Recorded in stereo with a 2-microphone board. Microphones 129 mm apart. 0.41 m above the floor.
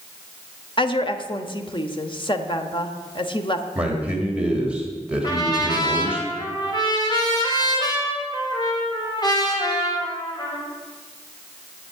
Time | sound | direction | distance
0.8 | a woman speaking | 40° left (ahead or behind) | 1.0 m
3.8 | a man speaking | 10° right (ahead or behind) | 1.9 m
5.2 | a trumpet | 35° left (ahead or behind) | 2.5 m